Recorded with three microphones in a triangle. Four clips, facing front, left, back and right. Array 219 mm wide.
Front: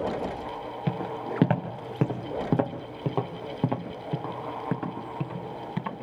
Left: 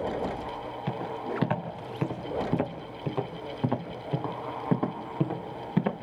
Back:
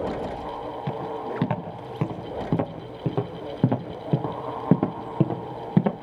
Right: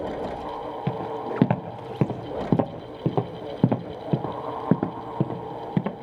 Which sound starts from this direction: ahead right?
Footsteps, at 0.9 s.